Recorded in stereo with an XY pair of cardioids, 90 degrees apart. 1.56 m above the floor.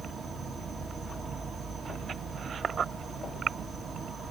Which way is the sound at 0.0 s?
60° right.